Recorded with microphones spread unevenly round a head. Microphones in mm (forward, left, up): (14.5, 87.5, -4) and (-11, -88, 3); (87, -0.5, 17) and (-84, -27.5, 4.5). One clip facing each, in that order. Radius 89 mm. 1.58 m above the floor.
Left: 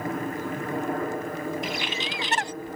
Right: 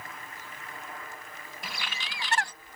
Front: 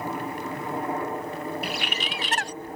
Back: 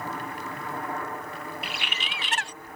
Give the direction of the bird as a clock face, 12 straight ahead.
11 o'clock.